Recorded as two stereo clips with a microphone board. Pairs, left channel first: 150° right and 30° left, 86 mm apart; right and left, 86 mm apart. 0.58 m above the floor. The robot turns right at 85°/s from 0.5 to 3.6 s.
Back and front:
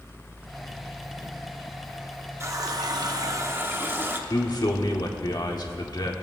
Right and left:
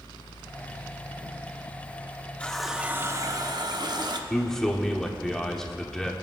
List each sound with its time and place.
2.4 s a running tap: 15° right, 0.7 m; by 4.2 s 85° left, 0.7 m
4.3 s a man speaking: 170° right, 1.0 m